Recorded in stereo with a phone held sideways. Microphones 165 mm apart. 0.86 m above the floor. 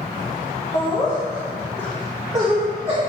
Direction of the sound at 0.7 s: 45° left (ahead or behind).